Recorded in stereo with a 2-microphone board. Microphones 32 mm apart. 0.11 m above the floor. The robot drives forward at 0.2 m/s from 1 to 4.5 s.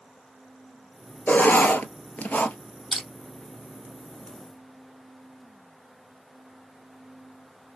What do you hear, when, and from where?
1.3 s writing: 55° left (ahead or behind), 0.8 m
2.9 s crushing: centre (ahead or behind), 3 m